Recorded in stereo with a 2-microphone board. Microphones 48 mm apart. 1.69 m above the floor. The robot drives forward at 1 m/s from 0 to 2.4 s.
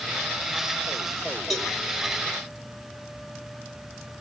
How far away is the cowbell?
About 3 m.